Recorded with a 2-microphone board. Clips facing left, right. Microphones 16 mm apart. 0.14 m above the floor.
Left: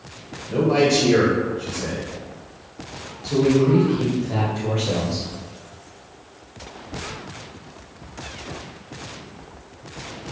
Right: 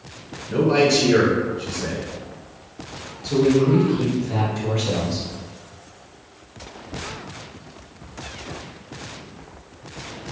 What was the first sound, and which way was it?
A man speaking, 20° right (ahead or behind).